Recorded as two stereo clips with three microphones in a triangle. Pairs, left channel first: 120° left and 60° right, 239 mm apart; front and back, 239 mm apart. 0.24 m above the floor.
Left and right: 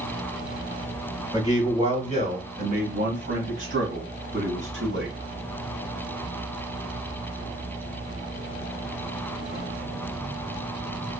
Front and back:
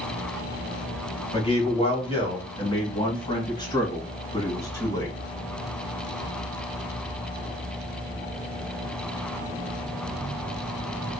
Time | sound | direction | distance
1.3 | a man speaking | 5° right | 1.4 m